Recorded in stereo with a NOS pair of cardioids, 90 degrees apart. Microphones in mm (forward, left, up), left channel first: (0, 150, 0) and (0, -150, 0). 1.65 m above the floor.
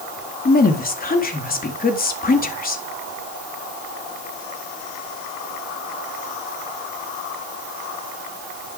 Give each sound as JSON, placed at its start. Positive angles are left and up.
{"t": 0.5, "sound": "a woman speaking", "azimuth_deg": 30, "distance_m": 4.0}